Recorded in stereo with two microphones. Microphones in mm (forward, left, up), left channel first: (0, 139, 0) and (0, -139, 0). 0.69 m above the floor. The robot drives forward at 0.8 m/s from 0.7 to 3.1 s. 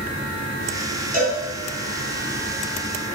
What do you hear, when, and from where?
1.1 s a cowbell: 35° left (ahead or behind), 3 m